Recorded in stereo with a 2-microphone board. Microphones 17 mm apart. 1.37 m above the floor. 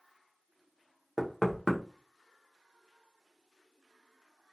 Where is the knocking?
10° left (ahead or behind), 0.6 m.